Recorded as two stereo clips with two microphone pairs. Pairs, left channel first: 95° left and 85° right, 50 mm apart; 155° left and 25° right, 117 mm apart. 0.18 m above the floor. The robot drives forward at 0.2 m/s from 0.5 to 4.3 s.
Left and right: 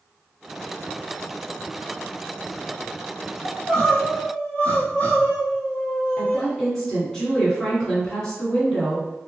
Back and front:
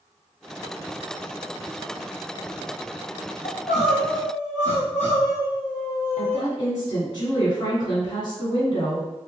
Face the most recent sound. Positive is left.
turn(degrees=165)